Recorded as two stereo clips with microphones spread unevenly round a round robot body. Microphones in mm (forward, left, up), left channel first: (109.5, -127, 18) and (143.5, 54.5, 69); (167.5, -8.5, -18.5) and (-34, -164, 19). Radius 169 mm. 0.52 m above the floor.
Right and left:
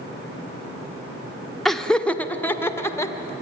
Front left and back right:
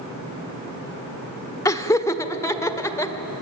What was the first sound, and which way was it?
Laughter, 25° right.